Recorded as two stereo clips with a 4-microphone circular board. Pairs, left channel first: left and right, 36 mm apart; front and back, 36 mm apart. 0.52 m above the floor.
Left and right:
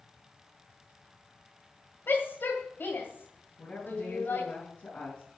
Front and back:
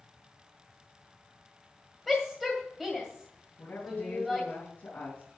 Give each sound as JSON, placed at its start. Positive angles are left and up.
{"t": 2.1, "sound": "a shout", "azimuth_deg": 85, "distance_m": 2.0}
{"t": 3.6, "sound": "a woman speaking", "azimuth_deg": 40, "distance_m": 4.0}